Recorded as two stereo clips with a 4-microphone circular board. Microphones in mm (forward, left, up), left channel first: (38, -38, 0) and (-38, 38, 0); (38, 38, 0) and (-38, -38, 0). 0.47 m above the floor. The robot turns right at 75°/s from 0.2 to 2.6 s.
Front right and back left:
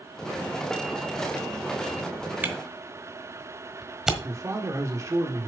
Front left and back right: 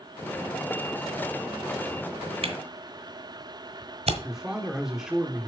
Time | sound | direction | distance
2.4 | a camera shutter | 155° right | 1.2 m
4.2 | a man speaking | 145° left | 1.0 m